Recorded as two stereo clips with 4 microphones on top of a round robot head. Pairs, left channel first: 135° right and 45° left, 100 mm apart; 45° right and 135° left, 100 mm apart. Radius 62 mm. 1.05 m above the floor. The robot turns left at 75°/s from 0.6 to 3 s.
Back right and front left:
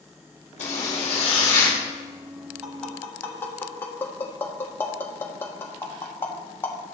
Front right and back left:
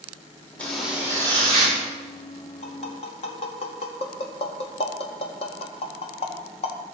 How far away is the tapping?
About 1.9 m.